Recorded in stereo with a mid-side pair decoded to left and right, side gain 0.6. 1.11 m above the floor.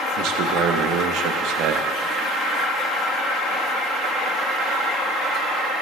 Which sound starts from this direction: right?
A man speaking, at 0.2 s.